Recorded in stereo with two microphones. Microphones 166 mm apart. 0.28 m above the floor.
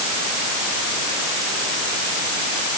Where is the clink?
No clink in this recording.